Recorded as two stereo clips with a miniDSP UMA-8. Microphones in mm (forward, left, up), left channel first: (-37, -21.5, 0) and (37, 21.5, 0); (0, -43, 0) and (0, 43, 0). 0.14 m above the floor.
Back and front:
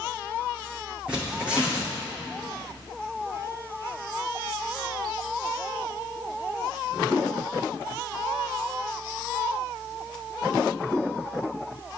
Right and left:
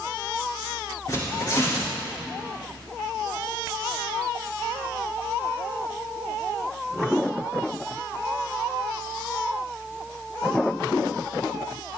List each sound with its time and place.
1.1 s tearing paper: 45° right, 6.5 m